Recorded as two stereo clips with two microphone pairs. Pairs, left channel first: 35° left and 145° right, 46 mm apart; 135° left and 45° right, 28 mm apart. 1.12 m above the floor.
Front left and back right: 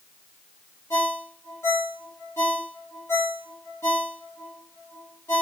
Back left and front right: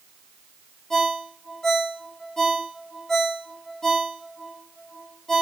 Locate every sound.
0.9 s a ringtone: 55° left, 1.2 m